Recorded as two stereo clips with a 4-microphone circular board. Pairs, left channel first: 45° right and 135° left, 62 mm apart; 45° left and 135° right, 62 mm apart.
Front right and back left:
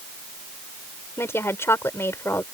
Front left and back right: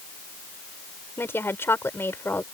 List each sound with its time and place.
1.2 s a woman speaking: 5° right